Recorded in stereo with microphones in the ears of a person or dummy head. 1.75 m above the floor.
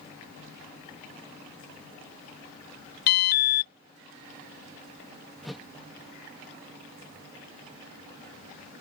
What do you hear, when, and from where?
3.1 s an alarm: 55° left (ahead or behind)
5.4 s a whoosh: centre (ahead or behind)